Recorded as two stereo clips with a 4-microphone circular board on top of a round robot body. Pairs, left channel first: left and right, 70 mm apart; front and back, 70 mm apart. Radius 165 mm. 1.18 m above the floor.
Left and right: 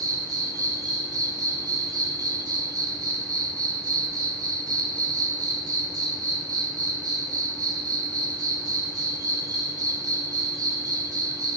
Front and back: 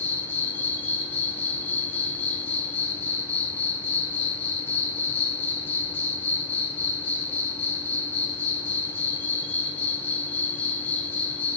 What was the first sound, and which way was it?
An insect, 60° right.